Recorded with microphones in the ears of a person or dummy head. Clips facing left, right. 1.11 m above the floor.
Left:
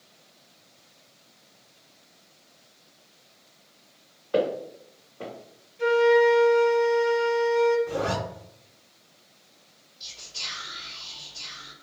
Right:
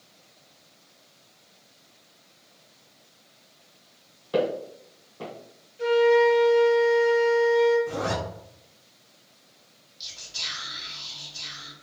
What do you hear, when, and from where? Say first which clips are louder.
4.3 s footsteps: even; 45° right (ahead or behind), 2.0 m
5.8 s a flute: even; 10° right (ahead or behind), 0.9 m
7.9 s a zipper: left 1 dB; 60° right (ahead or behind), 1.5 m
10.0 s whispering: even; 70° right (ahead or behind), 1.9 m